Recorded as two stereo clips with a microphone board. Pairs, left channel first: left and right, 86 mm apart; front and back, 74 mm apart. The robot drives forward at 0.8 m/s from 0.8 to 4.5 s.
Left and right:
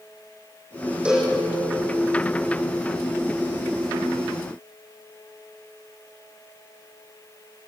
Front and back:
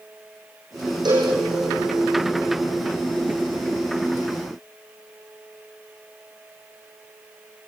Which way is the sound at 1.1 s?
170° right.